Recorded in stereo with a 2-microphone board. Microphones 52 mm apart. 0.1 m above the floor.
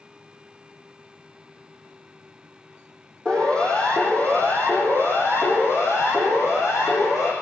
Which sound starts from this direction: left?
A siren, at 3.2 s.